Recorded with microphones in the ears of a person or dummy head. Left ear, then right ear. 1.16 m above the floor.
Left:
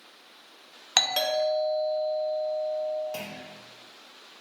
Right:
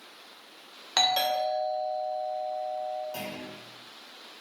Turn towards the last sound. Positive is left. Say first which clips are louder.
# even
turn(degrees=55)  # may be behind; listen again after turning